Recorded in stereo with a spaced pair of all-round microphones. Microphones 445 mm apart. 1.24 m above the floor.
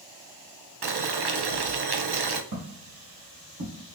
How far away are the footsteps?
About 1.7 m.